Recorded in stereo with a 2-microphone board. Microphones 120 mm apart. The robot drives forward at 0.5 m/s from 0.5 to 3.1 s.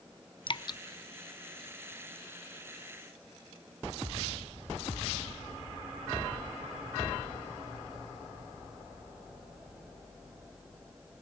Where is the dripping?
45° left (ahead or behind), 0.5 m; by 0.8 s 35° left (ahead or behind), 0.6 m.